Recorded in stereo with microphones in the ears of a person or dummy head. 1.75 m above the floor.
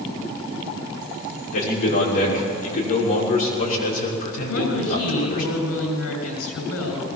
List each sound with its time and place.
1.5 s a man speaking: 45° left (ahead or behind), 6.5 m
4.5 s a woman speaking: 85° left, 8.5 m